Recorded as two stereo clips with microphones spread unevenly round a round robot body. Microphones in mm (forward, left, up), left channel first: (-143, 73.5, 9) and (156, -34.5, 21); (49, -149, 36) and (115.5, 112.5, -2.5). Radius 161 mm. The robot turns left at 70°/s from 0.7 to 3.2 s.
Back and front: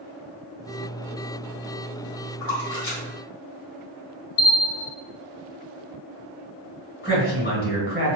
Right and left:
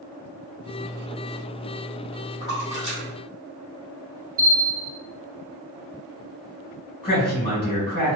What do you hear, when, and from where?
2.4 s a splash: 165° left, 1.8 m; by 4.4 s 110° left, 1.8 m
4.4 s a bell: 145° left, 1.0 m
7.0 s a man speaking: 175° right, 1.6 m